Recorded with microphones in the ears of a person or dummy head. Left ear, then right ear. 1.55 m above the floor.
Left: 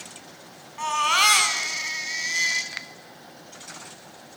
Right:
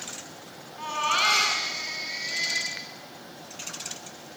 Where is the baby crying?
40° left (ahead or behind), 4.5 m.